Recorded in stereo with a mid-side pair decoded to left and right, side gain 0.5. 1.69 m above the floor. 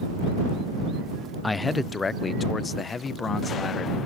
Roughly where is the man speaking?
Ahead.